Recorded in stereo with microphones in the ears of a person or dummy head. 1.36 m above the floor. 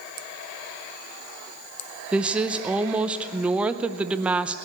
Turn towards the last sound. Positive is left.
turn(degrees=-10)  # may be behind; listen again after turning